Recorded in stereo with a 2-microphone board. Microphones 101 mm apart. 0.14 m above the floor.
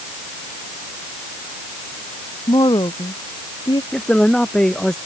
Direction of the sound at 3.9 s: 5° left (ahead or behind).